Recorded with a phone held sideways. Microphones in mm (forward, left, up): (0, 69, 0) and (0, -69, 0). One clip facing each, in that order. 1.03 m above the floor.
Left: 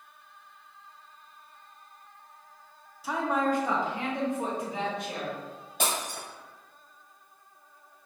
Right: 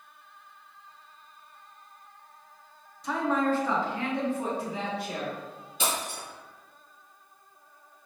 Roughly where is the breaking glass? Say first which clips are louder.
Even; left.